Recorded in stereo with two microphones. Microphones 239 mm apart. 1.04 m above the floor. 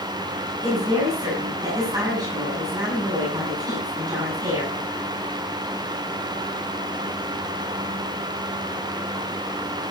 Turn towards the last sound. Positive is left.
turn(degrees=-15)  # may be behind; listen again after turning